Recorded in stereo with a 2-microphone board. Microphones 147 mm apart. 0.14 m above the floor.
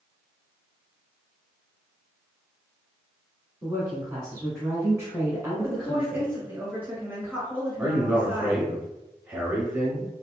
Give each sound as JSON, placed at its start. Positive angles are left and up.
{"t": 3.6, "sound": "a woman speaking", "side_deg": -20, "distance_m": 1.4}
{"t": 5.6, "sound": "a woman speaking", "side_deg": -15, "distance_m": 1.4}
{"t": 7.8, "sound": "a man speaking", "side_deg": -15, "distance_m": 1.3}